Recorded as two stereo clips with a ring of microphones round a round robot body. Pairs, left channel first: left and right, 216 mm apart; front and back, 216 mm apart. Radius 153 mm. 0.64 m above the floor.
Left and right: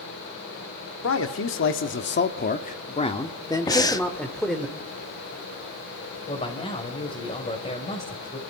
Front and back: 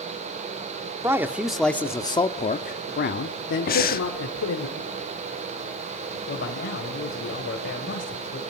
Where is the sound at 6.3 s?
30° left, 3.5 m.